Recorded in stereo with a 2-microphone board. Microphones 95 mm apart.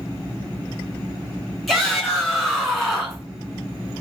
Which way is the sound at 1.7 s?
Centre (ahead or behind).